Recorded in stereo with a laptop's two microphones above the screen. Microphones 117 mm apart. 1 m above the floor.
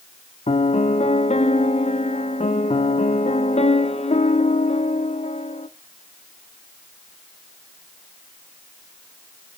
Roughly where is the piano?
Left.